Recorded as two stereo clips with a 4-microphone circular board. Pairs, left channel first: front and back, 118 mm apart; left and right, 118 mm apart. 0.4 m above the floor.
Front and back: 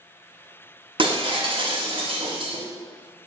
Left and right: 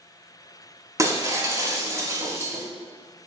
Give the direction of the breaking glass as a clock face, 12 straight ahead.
5 o'clock.